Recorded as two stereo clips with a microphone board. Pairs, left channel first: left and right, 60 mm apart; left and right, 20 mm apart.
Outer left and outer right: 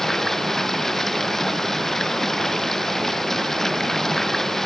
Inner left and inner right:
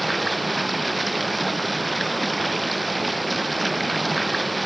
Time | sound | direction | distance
0.0 | running water | 5° left (ahead or behind) | ?